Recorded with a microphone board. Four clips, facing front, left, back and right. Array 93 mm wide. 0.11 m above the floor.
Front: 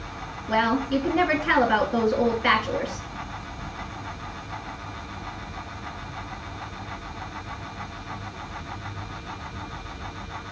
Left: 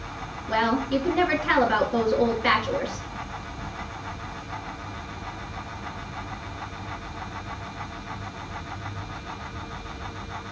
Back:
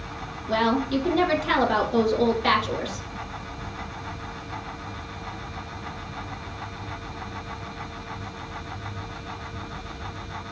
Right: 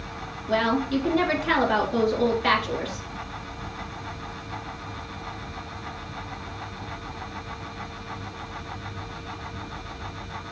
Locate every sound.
0.5 s a woman speaking: 25° left, 1.2 m